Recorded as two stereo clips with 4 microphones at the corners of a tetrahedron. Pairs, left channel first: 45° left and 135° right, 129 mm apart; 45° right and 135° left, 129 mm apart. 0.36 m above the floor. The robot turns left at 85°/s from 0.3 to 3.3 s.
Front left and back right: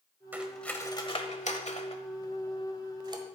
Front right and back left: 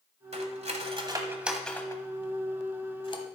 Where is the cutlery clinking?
150° left, 1.1 m; by 3.2 s 95° right, 1.1 m.